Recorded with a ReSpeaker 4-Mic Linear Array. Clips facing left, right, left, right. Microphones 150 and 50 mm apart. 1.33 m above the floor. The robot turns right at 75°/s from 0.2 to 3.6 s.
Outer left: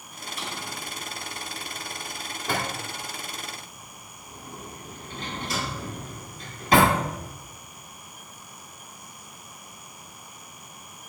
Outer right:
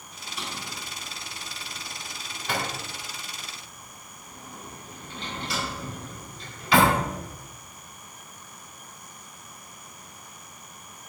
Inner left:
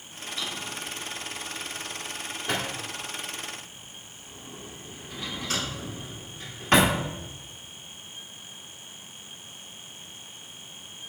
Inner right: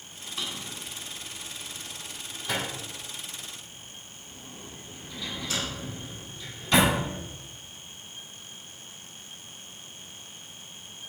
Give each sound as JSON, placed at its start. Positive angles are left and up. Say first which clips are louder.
{"t": 0.4, "sound": "a drawer", "louder": "outer left 1 dB, inner left 2 dB", "side_deg": -60, "distance_m": 1.5}